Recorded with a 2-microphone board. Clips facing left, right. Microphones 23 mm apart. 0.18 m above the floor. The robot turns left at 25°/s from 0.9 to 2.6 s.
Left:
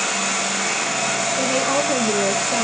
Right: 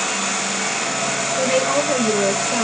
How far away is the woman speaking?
About 2.5 m.